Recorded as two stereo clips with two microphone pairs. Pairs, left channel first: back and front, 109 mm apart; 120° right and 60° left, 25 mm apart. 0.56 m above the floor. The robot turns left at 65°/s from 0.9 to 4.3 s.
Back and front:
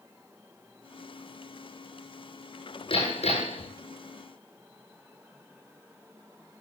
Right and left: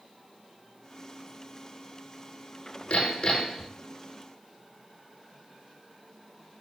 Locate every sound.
2.9 s hammering: 145° right, 7.5 m; by 3.7 s 160° left, 7.5 m